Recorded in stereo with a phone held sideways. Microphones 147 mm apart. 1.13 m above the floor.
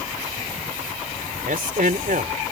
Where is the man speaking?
70° right (ahead or behind).